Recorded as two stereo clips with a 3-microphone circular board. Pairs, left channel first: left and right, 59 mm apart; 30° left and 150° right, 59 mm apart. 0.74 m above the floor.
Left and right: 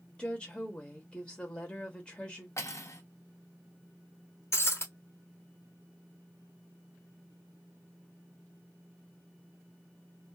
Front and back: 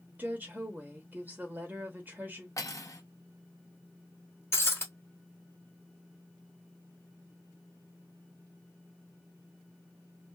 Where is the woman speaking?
160° left, 0.8 m.